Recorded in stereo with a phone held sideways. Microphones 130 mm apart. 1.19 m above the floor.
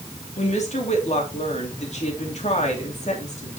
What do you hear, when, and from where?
0.4 s a woman speaking: 65° left (ahead or behind), 2.5 m